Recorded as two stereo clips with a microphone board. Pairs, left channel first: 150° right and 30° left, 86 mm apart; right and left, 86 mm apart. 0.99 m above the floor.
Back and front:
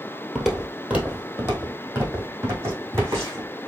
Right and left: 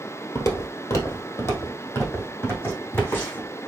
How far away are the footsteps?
About 1.4 m.